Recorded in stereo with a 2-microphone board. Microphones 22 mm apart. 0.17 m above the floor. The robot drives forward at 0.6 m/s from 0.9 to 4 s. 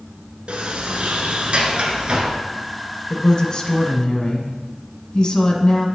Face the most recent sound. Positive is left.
turn(degrees=25)  # may be behind; listen again after turning